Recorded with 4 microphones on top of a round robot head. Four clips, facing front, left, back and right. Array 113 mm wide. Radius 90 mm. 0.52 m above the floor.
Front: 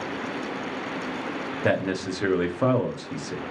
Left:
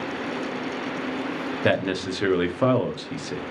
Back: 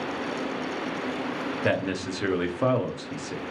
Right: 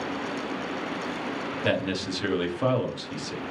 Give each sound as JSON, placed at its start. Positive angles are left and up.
{"t": 1.6, "sound": "a man speaking", "azimuth_deg": 75, "distance_m": 0.7}